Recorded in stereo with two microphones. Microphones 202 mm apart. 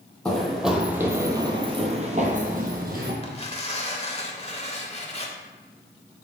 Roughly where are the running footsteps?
Centre.